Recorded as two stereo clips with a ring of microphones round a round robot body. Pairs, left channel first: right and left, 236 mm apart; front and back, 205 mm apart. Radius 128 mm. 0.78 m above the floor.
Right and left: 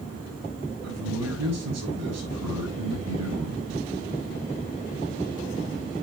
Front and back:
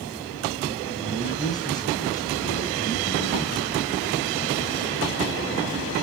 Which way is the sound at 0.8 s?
75° left.